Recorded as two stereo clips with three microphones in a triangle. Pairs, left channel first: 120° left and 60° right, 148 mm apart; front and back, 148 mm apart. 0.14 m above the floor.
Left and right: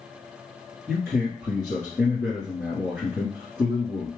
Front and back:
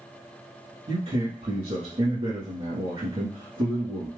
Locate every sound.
0.9 s a man speaking: 150° right, 3 m